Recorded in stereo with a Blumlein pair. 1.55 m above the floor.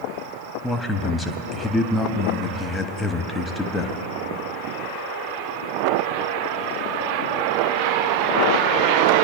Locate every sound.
0.6 s a man speaking: 10° left, 0.9 m